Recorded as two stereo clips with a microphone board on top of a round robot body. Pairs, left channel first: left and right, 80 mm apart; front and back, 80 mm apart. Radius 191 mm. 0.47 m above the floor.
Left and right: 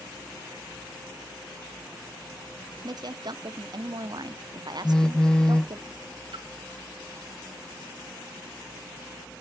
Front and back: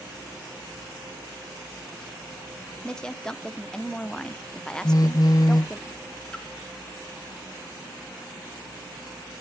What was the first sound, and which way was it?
A woman speaking, 80° right.